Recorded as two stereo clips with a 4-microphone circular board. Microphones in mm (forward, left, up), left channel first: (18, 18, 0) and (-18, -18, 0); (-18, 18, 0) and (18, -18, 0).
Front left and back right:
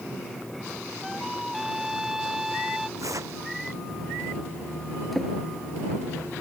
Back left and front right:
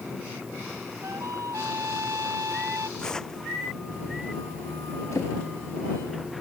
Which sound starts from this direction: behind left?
A drawer, at 5.1 s.